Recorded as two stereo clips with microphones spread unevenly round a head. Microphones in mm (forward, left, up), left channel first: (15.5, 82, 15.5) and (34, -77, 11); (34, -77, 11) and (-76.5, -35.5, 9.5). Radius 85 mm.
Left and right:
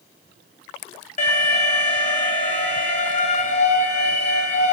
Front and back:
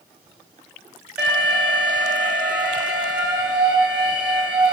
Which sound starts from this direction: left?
An alarm, at 1.2 s.